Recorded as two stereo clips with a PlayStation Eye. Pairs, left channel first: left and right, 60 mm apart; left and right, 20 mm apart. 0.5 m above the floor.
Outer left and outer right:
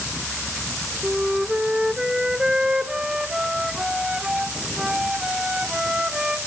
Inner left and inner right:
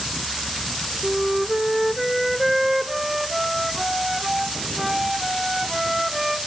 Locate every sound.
1.0 s a flute: 10° right (ahead or behind), 1.0 m